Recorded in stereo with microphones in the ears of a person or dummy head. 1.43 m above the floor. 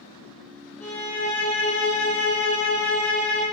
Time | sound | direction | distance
0.8 | a violin | 10° left (ahead or behind) | 1.1 m